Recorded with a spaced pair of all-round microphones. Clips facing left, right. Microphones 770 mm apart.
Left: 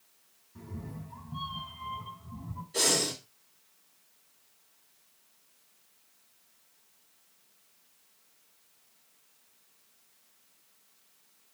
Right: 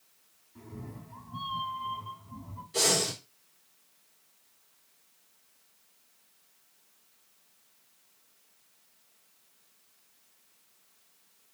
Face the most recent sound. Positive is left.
turn(degrees=-40)  # may be behind; listen again after turning